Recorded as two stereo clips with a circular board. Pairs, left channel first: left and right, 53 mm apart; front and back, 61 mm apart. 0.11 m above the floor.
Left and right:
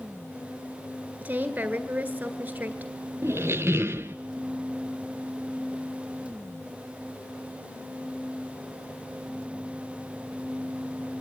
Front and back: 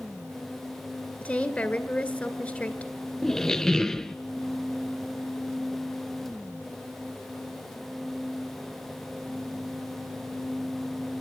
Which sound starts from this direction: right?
A squeak, at 3.2 s.